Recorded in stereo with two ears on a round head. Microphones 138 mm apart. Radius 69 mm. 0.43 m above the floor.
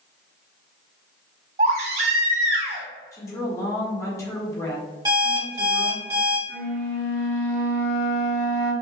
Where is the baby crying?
50° right (ahead or behind), 1.3 m.